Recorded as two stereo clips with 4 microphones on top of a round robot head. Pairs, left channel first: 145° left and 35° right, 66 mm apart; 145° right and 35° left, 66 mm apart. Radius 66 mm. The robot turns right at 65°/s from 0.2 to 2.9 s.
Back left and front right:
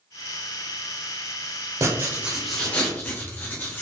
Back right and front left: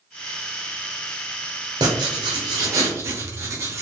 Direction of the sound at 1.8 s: 10° left.